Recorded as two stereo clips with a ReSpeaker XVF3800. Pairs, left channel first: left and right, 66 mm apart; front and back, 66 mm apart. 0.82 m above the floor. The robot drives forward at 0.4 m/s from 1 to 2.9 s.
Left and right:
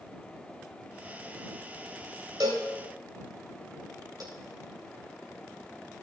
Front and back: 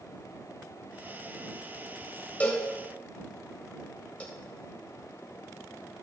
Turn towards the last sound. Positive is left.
turn(degrees=-70)